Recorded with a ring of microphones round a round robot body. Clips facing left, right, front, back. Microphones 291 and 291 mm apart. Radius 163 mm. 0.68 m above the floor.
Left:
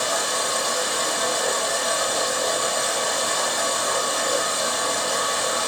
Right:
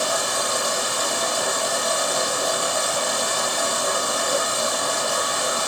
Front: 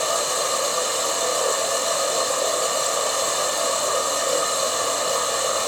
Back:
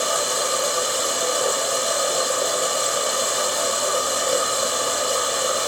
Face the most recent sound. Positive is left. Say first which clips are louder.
# right 1 dB, back 1 dB
turn(degrees=-110)